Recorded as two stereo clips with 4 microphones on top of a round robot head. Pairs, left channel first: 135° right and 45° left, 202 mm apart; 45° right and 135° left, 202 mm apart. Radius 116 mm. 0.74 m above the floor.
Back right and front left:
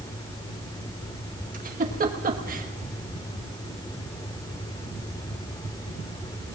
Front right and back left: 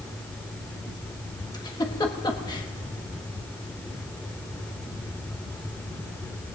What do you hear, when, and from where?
1.5 s a giggle: 15° left, 1.3 m